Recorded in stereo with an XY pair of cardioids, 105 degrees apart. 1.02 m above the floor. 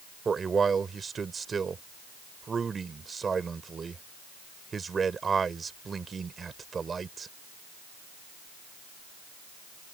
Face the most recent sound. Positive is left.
turn(degrees=-35)